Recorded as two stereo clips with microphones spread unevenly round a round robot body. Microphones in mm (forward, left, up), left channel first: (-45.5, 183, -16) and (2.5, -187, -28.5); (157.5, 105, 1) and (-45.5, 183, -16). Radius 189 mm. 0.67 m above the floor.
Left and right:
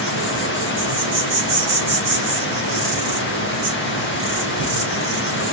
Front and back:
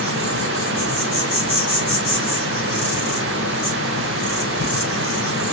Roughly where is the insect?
Ahead right.